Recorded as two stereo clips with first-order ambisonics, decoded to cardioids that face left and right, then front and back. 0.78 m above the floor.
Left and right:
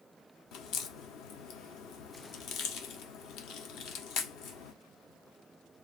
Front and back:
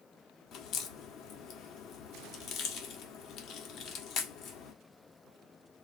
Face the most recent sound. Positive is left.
turn(degrees=50)